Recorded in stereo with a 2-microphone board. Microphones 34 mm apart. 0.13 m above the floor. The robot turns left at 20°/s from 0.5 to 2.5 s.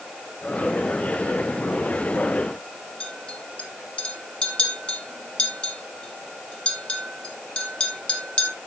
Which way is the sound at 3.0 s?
30° left (ahead or behind).